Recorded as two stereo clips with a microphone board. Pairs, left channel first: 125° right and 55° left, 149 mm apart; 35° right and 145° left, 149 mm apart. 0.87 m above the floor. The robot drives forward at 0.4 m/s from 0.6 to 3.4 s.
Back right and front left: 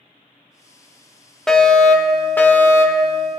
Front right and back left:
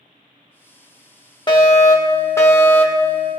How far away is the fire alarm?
About 1.5 m.